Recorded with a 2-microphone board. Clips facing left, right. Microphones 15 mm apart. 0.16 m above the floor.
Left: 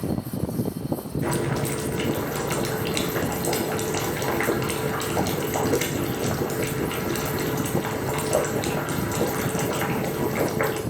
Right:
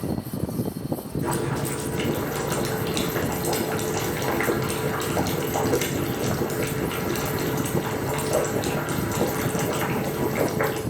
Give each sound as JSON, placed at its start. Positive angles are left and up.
{"t": 1.2, "sound": "boiling", "side_deg": 60, "distance_m": 1.3}